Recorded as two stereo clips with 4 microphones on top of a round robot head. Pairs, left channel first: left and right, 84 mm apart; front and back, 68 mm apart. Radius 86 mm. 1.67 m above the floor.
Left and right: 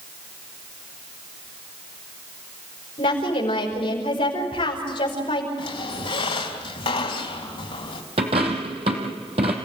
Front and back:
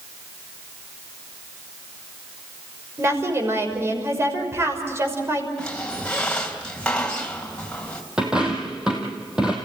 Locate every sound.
3.0 s a woman speaking: 125° left, 6 m
5.6 s a squeak: 75° left, 3 m
8.2 s a dropped coin: 95° right, 2.5 m